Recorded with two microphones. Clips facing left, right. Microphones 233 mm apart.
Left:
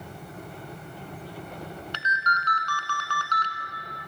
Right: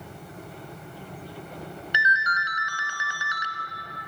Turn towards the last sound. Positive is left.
turn(degrees=-10)  # may be behind; listen again after turning